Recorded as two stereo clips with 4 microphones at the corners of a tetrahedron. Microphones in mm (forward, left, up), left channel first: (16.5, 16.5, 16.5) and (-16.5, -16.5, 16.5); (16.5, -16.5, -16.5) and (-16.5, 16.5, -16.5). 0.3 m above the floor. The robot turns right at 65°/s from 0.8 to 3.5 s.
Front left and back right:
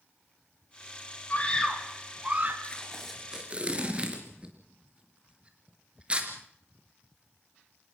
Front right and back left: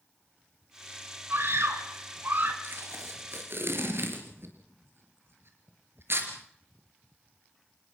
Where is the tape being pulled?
110° left, 4 m; by 6.3 s 165° left, 4 m.